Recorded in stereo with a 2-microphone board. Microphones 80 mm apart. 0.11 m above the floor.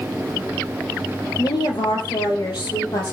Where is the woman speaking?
65° left (ahead or behind), 3.5 m.